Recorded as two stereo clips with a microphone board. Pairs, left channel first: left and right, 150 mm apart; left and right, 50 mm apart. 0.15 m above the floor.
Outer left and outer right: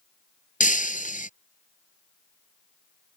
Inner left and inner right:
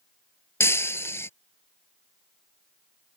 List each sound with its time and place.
0.6 s breaking glass: 60° left (ahead or behind)